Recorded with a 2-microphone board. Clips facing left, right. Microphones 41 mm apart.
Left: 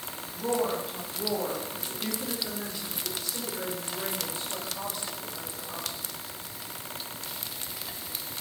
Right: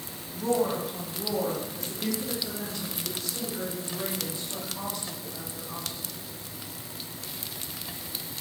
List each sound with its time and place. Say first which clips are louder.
0.3 s a woman speaking: right 2 dB; 5° left (ahead or behind), 2 m; by 6.1 s 15° left (ahead or behind), 8.5 m